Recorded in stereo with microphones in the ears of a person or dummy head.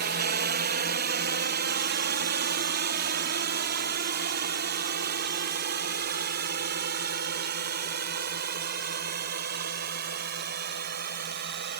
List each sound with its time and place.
0.0 s a drone: 50° right (ahead or behind); by 11.8 s 55° right (ahead or behind)